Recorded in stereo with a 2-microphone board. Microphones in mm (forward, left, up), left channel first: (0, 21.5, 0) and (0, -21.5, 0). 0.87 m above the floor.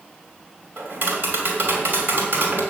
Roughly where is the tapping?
Right.